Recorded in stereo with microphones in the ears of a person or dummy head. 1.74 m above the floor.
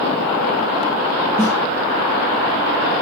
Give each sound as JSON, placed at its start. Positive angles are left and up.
{"t": 1.4, "sound": "a snare drum", "side_deg": 20, "distance_m": 4.0}